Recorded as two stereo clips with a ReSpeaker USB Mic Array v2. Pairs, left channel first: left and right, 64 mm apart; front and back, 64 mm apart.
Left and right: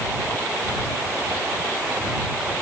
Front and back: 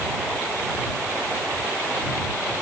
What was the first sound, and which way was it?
Only background noise.